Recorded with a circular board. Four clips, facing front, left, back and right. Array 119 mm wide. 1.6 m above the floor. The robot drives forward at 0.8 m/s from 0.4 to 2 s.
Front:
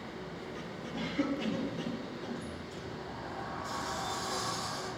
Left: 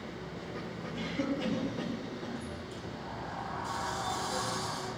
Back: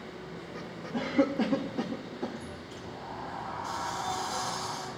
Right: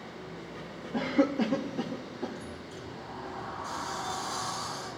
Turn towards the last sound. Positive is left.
turn(degrees=170)